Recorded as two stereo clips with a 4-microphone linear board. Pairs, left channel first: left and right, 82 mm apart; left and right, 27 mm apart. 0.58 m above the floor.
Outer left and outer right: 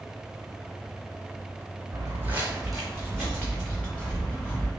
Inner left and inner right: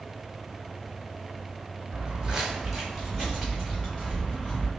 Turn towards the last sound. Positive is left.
turn(degrees=25)  # may be behind; listen again after turning